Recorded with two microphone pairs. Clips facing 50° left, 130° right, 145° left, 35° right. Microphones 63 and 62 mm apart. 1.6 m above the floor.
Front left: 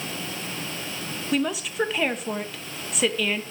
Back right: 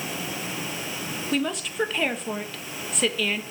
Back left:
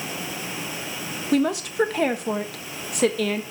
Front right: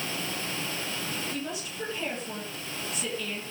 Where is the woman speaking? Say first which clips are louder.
Front left 2 dB, back left 14 dB; 140° left, 1.6 m.